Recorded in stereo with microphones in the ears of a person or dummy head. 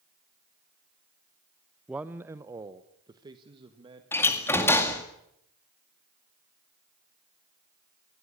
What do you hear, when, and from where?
1.9 s a man speaking: 5° right (ahead or behind), 0.5 m; by 4.0 s 30° right (ahead or behind), 1.8 m
4.1 s a door slam: 10° left (ahead or behind), 2 m